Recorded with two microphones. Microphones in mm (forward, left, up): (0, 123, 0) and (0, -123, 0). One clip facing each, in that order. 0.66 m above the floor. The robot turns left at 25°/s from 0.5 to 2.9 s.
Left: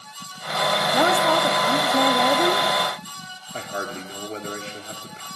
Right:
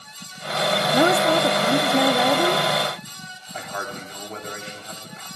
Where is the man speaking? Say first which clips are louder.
Left 2 dB; 30° left (ahead or behind), 1.5 m.